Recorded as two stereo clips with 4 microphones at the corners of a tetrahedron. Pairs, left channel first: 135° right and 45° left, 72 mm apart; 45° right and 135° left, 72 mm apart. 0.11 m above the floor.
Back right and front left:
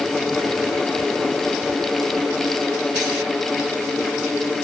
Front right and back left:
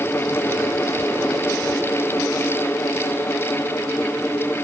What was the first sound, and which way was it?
Only background noise.